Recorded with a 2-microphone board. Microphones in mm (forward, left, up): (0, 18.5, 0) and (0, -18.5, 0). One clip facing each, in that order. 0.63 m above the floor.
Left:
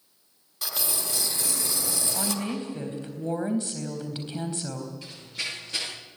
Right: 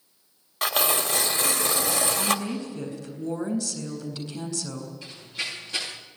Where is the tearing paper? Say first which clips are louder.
Right 8 dB; 60° right (ahead or behind), 1.6 m.